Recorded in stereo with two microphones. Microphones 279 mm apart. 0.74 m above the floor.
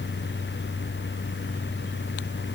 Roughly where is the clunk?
I don't hear a clunk.